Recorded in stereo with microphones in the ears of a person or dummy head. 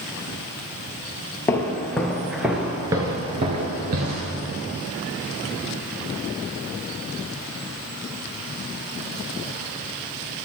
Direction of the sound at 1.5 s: 15° left (ahead or behind).